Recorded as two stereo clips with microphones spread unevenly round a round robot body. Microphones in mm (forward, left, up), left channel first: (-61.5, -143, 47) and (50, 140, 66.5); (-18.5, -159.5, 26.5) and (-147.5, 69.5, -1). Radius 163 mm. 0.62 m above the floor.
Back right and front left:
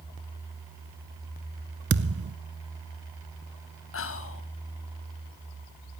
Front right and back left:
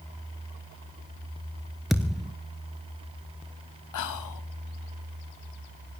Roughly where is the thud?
Ahead left.